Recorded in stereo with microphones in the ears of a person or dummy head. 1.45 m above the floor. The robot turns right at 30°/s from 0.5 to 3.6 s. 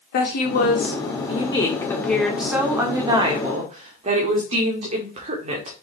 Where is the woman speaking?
120° left, 1.8 m; by 5.7 s 145° right, 1.8 m.